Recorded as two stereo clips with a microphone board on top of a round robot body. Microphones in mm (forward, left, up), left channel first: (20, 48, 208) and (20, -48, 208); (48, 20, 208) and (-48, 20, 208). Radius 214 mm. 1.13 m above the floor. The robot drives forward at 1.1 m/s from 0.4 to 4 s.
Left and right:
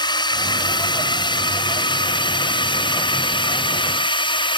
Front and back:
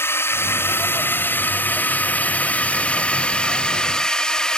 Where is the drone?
60° left; by 4.6 s 80° left.